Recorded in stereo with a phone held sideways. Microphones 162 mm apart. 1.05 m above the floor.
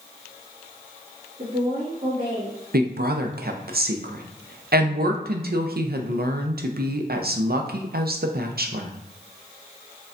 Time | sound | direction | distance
1.4 | a woman speaking | 40° right (ahead or behind) | 2.0 m
2.7 | a woman speaking | 70° right (ahead or behind) | 0.5 m